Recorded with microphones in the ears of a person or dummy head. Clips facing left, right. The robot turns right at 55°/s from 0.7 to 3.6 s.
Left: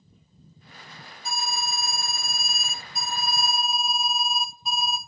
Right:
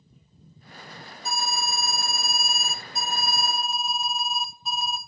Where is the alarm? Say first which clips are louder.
Right 2 dB; 115° right, 0.5 m; by 5.0 s 15° left, 0.5 m.